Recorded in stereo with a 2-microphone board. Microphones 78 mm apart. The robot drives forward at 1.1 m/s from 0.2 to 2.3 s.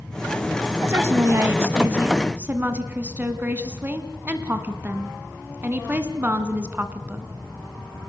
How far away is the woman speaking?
About 1.3 m.